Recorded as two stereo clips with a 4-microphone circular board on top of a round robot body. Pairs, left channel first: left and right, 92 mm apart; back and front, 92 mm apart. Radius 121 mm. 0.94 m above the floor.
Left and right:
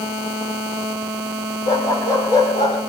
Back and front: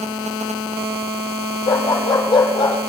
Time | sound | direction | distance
1.7 | a dog barking | 140° left | 10 m